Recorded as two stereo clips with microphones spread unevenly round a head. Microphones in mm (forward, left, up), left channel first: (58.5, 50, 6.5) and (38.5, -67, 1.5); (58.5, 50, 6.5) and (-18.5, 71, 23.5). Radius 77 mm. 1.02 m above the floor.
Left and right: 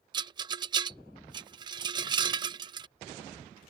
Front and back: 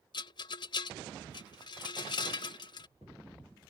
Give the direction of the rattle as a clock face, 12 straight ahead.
2 o'clock.